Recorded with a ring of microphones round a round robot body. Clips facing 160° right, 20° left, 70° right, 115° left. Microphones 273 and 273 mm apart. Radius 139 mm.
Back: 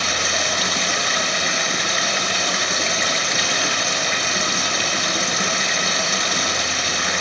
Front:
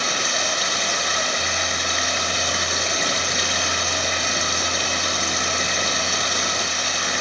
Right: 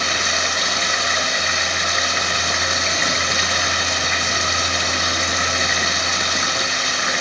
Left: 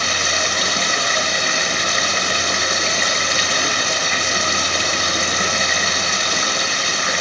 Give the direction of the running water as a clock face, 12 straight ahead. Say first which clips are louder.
Back 1 dB, left 1 dB; 6 o'clock.